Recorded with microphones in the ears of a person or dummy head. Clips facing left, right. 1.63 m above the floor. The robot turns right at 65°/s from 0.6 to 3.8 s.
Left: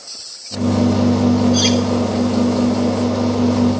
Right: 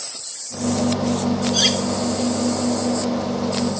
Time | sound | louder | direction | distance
1.5 | cutlery clinking | left 7 dB | 10° right (ahead or behind) | 1.6 m